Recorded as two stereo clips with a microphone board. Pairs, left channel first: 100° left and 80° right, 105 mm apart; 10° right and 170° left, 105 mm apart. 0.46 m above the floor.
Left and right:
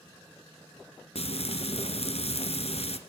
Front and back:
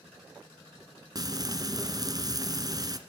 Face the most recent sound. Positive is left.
turn(degrees=120)